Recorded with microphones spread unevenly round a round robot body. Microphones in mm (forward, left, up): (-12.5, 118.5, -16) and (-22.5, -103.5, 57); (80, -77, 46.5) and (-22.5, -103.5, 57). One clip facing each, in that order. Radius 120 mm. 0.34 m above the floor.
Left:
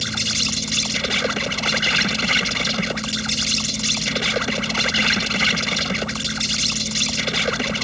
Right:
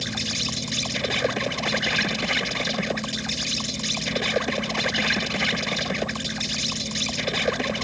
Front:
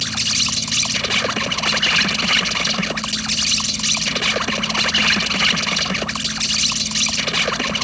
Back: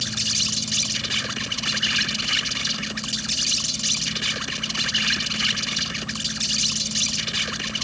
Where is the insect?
25° left.